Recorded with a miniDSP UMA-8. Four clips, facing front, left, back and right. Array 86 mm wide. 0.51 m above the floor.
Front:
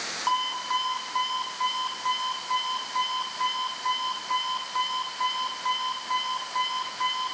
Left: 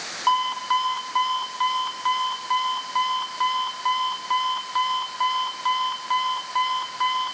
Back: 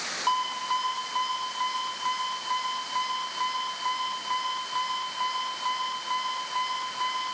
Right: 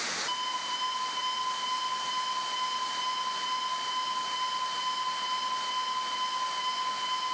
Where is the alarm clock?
85° left, 3 m.